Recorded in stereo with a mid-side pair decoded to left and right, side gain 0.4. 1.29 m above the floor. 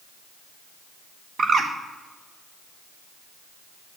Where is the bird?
55° right, 0.9 m.